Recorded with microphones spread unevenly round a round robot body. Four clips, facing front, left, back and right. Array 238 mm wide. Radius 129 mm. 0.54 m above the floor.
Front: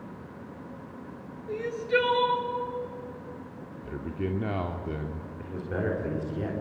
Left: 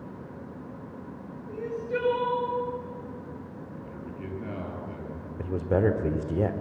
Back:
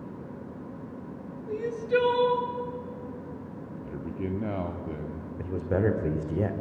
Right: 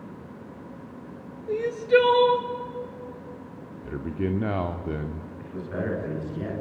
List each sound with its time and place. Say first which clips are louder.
1.5 s crying: right 10 dB, back 1 dB; 90° right, 2 m
3.8 s a man speaking: right 13 dB, front 1 dB; 70° right, 1.3 m
5.4 s a man speaking: left 8 dB, back 5 dB; 125° left, 2 m